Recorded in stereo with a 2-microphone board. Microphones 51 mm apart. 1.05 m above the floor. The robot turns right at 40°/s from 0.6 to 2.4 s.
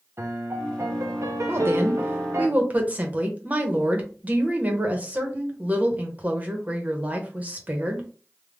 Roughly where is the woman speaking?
Right.